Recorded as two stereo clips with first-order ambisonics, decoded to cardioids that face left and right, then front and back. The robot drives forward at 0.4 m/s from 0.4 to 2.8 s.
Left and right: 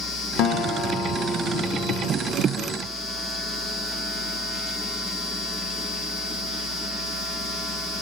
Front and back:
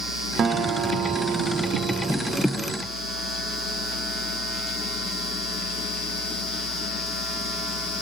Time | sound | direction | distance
0.4 | a guitar | 115° left | 0.8 m